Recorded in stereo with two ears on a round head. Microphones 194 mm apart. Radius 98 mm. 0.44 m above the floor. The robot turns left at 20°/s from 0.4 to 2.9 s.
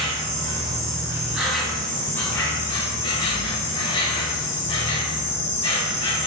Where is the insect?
155° right, 0.7 m; by 6.3 s 155° left, 0.7 m.